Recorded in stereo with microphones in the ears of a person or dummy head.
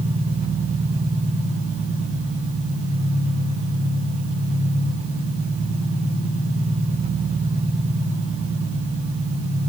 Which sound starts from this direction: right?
An engine running, at 0.0 s.